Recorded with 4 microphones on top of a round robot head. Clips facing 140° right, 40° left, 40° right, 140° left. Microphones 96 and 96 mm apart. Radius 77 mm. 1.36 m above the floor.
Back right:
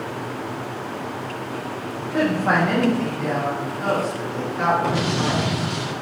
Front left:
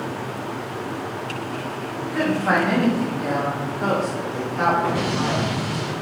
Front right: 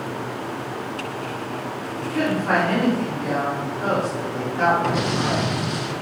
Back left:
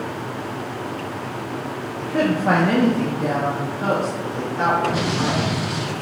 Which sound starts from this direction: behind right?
An explosion, at 4.8 s.